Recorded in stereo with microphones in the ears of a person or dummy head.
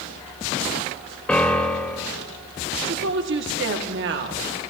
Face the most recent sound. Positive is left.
turn(degrees=-60)  # may be behind; listen again after turning